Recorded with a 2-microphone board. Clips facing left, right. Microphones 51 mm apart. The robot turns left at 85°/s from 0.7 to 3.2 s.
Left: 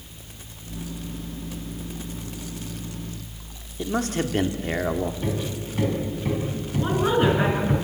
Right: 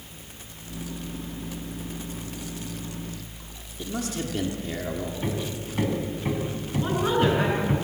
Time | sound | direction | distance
3.8 | a man speaking | 45° left (ahead or behind) | 1.6 m
5.2 | hammering | 15° right (ahead or behind) | 4 m
6.8 | a woman speaking | 10° left (ahead or behind) | 6.5 m